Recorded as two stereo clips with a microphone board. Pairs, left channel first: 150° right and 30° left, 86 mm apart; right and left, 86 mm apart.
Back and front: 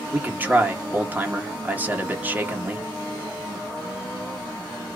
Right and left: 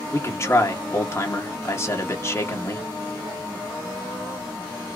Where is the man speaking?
35° right, 1.2 m.